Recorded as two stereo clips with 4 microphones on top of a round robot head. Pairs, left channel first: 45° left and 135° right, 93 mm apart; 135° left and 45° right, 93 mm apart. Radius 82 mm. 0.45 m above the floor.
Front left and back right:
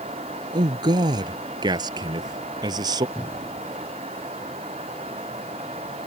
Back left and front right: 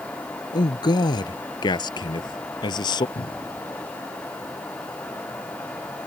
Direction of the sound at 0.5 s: Straight behind.